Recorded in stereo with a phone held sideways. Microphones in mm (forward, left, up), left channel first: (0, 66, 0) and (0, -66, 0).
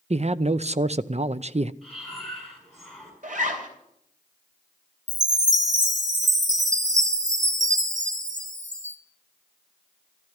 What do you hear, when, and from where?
0.1 s a man speaking: 50° right (ahead or behind), 0.5 m
1.8 s breathing: centre (ahead or behind), 6 m
3.2 s a zipper: 70° right (ahead or behind), 3.5 m
5.1 s a chime: 60° right (ahead or behind), 1.7 m